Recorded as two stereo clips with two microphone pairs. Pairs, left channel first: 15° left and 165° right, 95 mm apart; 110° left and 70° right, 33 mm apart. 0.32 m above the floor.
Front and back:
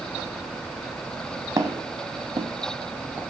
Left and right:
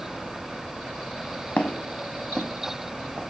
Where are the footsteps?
145° left, 0.9 m; by 3.2 s 95° right, 0.9 m.